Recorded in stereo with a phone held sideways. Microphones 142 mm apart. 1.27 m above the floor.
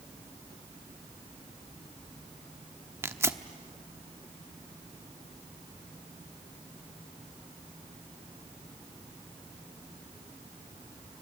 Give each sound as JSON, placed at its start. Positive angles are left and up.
{"t": 3.0, "sound": "tearing paper", "side_deg": -20, "distance_m": 0.9}